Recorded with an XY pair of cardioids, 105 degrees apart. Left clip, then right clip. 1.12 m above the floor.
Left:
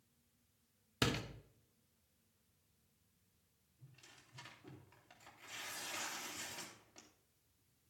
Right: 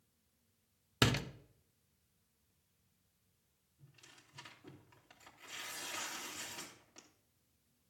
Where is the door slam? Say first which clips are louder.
Right 5 dB; 40° right, 0.9 m.